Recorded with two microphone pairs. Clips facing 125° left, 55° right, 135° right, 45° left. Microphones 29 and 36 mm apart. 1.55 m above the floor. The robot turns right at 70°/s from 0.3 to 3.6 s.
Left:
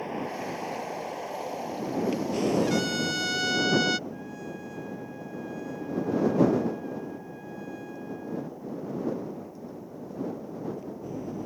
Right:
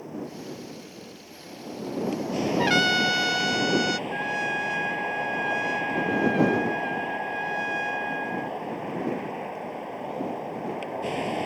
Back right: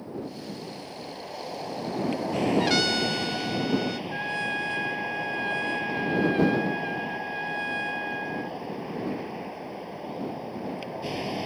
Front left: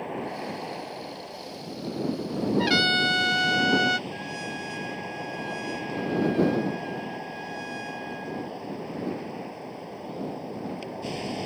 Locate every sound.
0.0 s a vehicle: 75° left; by 11.5 s 55° right
2.6 s a trumpet: 35° right; by 4.0 s 35° left
4.1 s a trumpet: 75° right